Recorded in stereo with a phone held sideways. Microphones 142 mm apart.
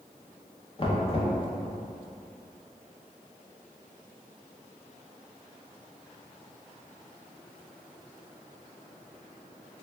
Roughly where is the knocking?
Left.